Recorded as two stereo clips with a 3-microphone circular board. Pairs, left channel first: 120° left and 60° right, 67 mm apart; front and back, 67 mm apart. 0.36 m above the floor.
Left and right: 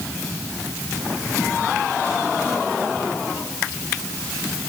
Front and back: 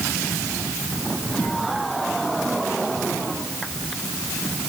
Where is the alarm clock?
I don't hear an alarm clock.